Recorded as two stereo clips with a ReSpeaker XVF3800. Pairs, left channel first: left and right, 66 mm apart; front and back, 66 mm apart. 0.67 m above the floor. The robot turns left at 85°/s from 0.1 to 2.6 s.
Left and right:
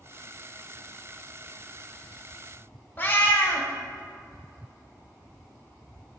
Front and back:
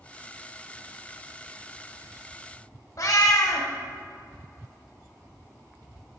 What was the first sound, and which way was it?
A cat meowing, 30° left.